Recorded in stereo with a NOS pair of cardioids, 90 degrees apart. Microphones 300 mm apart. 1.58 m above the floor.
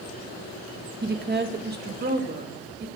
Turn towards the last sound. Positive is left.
turn(degrees=-35)